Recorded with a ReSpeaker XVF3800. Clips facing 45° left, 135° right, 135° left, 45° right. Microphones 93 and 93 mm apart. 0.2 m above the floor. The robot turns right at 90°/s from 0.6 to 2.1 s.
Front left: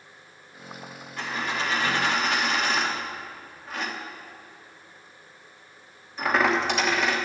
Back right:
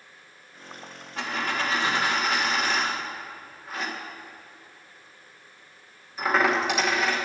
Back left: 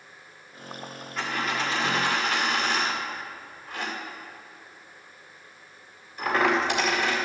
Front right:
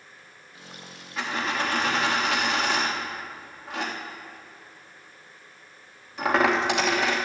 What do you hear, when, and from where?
1.2 s a dropped coin: 135° right, 3 m; by 7.2 s 50° right, 3 m